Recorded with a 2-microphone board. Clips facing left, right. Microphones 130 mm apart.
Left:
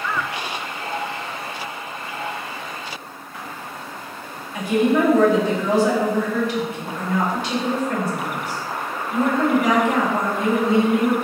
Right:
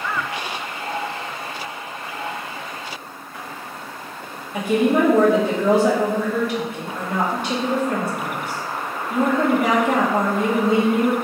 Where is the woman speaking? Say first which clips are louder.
Even; 55° right (ahead or behind), 1.2 m.